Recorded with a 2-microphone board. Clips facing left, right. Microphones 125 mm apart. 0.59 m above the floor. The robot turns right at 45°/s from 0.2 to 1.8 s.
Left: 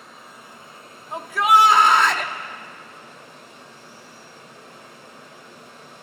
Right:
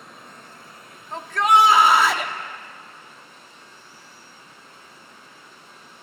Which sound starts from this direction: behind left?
A shout, at 1.1 s.